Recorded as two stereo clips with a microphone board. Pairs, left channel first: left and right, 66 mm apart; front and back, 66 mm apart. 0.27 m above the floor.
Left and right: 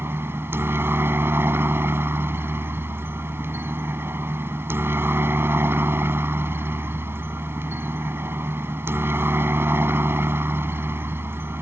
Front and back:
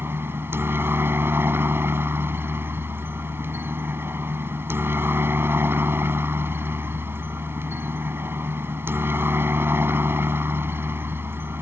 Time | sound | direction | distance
0.0 | a helicopter | 135° right | ?